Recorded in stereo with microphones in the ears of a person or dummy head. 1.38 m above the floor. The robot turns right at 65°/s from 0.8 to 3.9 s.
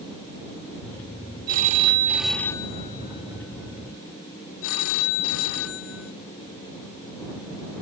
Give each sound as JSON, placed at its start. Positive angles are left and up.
{"t": 1.5, "sound": "a phone ringing", "azimuth_deg": -55}